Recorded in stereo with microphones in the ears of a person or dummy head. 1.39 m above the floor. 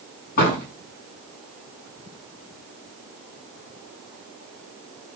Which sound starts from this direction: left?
A door slam, at 0.4 s.